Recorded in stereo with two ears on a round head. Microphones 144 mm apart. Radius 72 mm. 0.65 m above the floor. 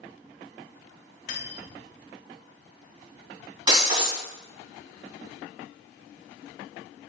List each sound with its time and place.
1.3 s cutlery clinking: 50° left (ahead or behind), 2 m
3.7 s breaking glass: 30° right (ahead or behind), 2 m